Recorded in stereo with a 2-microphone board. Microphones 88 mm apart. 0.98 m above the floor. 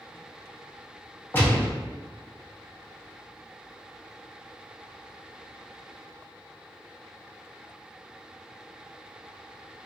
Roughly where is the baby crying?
No baby crying in this recording.